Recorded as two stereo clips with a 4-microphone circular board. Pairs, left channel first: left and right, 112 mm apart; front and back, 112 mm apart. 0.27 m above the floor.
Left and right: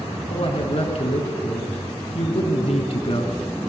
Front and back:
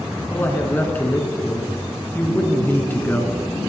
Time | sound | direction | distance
0.3 | a man speaking | 70° left | 2.5 m